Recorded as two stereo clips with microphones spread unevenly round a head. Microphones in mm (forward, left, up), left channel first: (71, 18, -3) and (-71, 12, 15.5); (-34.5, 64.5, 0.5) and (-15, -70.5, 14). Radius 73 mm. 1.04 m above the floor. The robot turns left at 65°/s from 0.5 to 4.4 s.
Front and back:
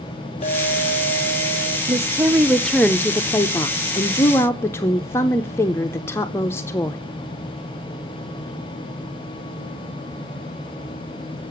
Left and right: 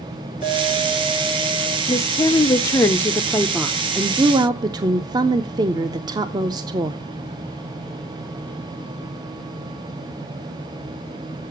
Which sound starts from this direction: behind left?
A woman speaking, at 1.9 s.